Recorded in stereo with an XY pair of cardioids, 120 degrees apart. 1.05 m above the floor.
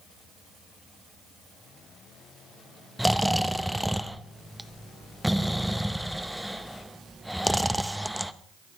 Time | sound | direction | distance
3.0 | snoring | straight ahead | 0.6 m